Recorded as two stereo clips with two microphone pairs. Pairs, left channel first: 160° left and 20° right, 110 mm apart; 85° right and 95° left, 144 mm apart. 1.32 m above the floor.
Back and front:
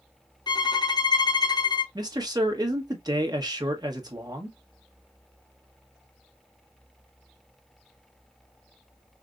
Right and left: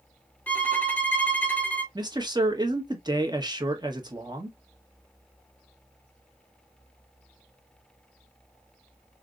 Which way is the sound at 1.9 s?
30° left.